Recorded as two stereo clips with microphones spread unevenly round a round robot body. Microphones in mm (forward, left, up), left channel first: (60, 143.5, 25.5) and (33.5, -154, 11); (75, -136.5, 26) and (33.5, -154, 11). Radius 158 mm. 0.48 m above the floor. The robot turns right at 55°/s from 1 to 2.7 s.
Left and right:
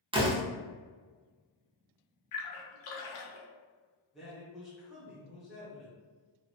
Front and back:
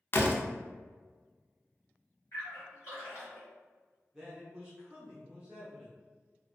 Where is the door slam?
30° right, 0.6 m.